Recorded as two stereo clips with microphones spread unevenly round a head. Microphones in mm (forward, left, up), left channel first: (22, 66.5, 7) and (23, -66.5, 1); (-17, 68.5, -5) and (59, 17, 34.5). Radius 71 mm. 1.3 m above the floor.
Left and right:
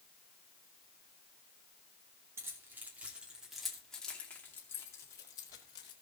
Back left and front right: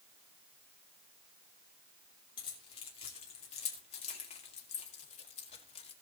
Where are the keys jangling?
165° right, 2.5 m; by 5.9 s 150° left, 2.5 m.